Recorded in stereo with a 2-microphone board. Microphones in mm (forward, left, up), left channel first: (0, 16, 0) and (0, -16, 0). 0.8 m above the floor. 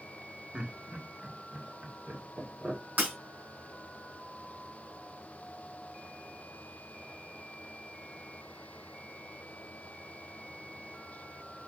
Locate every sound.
0.5 s laughter: 40° right (ahead or behind), 2 m; by 2.8 s 70° right (ahead or behind), 3 m
3.0 s breaking glass: 80° right, 4 m